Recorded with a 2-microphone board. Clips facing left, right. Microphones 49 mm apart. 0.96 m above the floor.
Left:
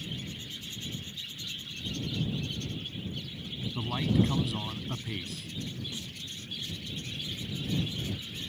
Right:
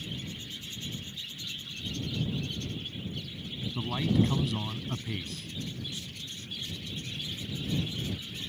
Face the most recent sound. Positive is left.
turn(degrees=30)  # may be behind; listen again after turning